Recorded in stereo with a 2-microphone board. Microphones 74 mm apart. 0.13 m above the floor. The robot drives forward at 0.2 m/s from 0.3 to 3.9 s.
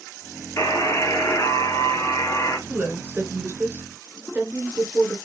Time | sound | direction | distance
0.6 | a buzzer | 50° left (ahead or behind) | 2.5 m
2.7 | a woman speaking | 30° right (ahead or behind) | 1.5 m